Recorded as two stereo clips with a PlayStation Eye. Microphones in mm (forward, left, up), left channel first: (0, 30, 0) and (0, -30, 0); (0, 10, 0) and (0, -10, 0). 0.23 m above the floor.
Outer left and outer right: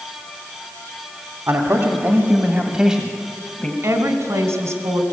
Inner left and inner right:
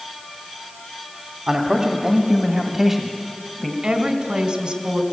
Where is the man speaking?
45° right (ahead or behind), 2.0 m; by 3.7 s 15° left (ahead or behind), 1.7 m.